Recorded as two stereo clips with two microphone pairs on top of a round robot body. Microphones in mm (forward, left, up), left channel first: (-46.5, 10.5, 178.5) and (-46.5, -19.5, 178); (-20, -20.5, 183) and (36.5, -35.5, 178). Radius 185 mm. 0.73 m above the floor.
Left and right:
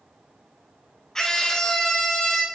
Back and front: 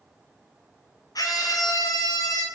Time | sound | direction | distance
1.1 | a scream | 165° left | 4 m